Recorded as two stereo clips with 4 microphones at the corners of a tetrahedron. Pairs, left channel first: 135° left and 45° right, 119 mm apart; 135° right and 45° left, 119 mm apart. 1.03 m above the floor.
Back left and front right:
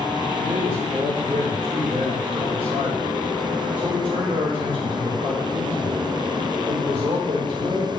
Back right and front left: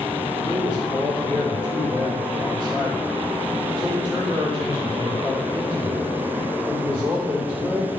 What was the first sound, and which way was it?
A man speaking, 5° right.